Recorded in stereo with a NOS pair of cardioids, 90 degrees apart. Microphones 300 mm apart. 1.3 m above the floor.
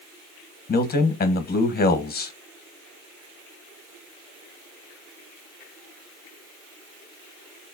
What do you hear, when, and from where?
0.7 s a man speaking: 30° left, 0.9 m